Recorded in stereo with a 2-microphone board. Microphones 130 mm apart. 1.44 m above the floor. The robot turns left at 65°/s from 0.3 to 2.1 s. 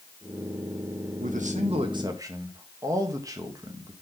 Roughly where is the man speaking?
Right.